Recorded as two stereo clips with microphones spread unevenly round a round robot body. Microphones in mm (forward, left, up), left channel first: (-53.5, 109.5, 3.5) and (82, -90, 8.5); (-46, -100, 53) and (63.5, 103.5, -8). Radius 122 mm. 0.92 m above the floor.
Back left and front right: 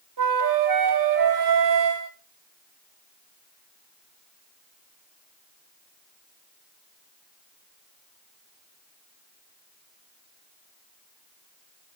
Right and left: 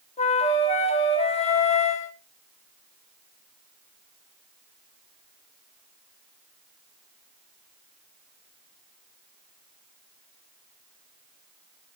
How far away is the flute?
About 1.4 m.